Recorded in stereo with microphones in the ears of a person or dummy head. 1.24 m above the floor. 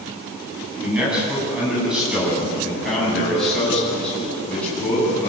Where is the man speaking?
5° right (ahead or behind), 9 m; by 5.3 s 10° left (ahead or behind), 8.5 m.